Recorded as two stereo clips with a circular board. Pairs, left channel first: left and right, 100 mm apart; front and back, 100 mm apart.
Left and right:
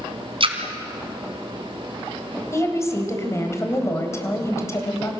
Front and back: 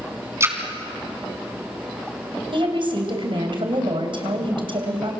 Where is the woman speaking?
150° left, 3.5 m.